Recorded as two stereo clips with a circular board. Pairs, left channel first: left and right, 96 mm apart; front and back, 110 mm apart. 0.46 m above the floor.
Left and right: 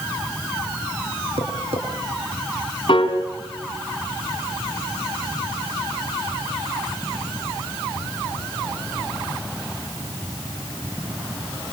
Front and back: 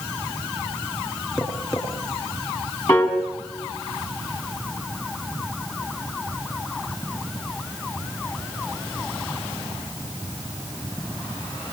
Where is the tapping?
100° right, 4 m.